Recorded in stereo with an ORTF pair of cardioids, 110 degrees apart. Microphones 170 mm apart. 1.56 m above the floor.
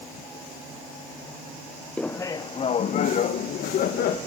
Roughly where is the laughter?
Ahead.